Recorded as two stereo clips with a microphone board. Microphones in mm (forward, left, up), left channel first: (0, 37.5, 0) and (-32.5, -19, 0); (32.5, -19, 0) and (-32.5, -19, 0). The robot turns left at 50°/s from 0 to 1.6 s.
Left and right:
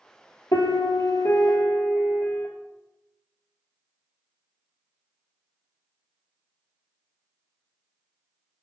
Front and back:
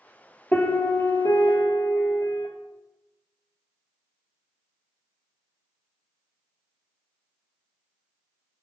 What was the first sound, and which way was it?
A piano, 55° left.